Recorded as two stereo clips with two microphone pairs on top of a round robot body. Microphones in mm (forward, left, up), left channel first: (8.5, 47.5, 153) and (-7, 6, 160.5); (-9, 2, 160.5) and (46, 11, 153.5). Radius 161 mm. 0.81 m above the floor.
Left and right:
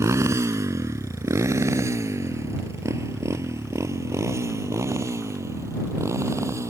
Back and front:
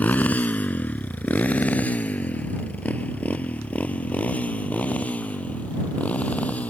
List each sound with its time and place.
0.0 s a motorcycle: 110° right; by 6.7 s 105° right